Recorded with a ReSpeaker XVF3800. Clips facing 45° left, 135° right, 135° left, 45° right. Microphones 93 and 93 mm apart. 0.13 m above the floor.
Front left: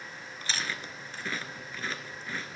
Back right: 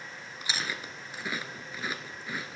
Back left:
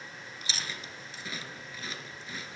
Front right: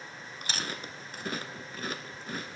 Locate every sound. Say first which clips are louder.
0.4 s chewing: even, front right 4 dB; 60° right, 0.9 m